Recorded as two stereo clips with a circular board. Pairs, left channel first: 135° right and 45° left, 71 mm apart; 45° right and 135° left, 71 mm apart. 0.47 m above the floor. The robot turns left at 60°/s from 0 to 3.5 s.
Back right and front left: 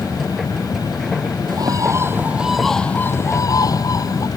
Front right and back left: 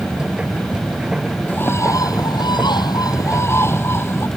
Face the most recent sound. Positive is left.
turn(degrees=-100)